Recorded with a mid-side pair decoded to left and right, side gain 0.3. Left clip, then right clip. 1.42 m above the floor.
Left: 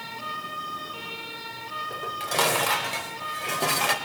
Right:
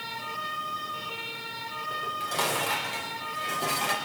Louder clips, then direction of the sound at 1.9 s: Left 2 dB; 65° left.